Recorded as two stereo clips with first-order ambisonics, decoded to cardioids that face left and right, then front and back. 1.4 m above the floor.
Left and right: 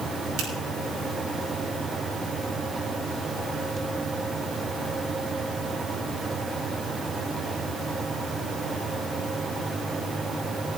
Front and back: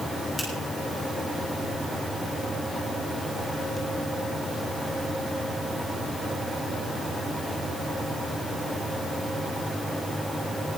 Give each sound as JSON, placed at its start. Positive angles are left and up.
{"t": 0.4, "sound": "a finger snap", "azimuth_deg": -85, "distance_m": 7.0}